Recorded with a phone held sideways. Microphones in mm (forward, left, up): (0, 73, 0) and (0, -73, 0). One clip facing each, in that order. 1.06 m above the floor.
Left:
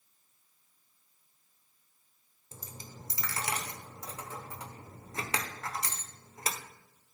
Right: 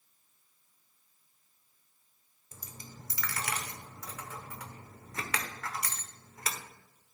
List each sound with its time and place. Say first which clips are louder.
2.5 s a dropped coin: left 2 dB; 30° left (ahead or behind), 0.9 m